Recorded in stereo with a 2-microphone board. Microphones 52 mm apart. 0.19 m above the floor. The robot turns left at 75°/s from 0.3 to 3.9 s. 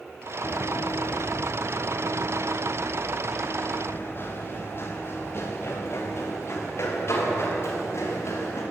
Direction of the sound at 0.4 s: 50° left (ahead or behind).